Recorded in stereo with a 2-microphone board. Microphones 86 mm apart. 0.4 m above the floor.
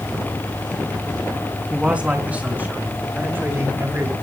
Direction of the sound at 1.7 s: 15° right (ahead or behind).